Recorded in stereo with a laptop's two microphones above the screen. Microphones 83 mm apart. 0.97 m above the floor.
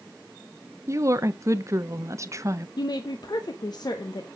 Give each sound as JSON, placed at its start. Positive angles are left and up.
{"t": 0.9, "sound": "a woman speaking", "side_deg": -40, "distance_m": 0.6}
{"t": 2.8, "sound": "a woman speaking", "side_deg": 55, "distance_m": 0.8}